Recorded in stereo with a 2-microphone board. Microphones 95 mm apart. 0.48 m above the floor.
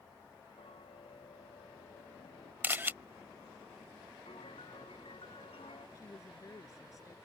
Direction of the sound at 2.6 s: 20° right (ahead or behind).